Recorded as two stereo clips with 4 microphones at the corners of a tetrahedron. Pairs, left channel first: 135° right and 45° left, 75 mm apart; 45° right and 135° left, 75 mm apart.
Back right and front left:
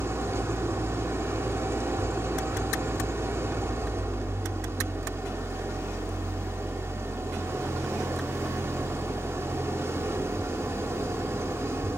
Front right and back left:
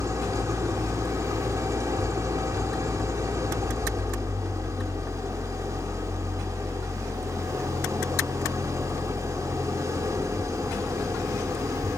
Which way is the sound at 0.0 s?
95° left.